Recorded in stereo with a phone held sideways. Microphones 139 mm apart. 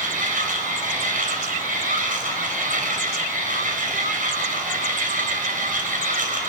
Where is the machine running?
75° right (ahead or behind), 4.5 m.